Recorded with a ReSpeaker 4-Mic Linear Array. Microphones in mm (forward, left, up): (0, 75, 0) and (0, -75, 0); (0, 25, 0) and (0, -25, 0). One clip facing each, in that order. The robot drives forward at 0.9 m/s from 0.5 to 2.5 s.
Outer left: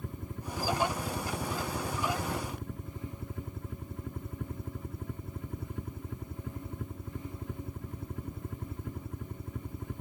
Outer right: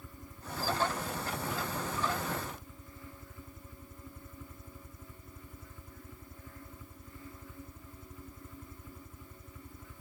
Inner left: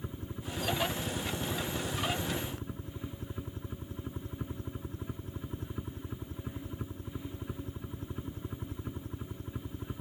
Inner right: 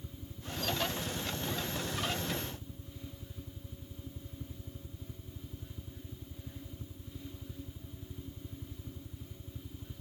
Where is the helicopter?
60° left (ahead or behind).